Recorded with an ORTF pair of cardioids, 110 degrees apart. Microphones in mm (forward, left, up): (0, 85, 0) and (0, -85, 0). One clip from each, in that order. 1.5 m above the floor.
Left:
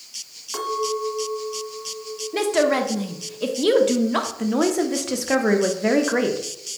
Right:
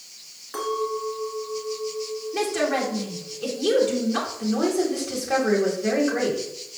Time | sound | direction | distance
0.5 | a clink | 20° left | 1.4 m
2.3 | a woman speaking | 45° left | 0.7 m
4.4 | a woman speaking | 50° left | 0.8 m